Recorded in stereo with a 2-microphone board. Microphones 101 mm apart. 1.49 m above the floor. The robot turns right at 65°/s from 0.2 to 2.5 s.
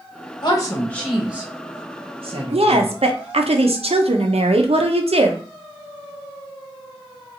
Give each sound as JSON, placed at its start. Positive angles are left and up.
{"t": 0.4, "sound": "a woman speaking", "side_deg": 50, "distance_m": 1.0}
{"t": 2.5, "sound": "a woman speaking", "side_deg": -80, "distance_m": 0.5}